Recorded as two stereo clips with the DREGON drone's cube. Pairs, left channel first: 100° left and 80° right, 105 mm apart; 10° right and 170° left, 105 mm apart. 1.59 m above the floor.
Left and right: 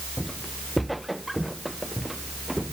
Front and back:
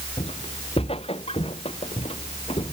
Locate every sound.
0.2 s footsteps: 10° left; by 2.7 s 5° left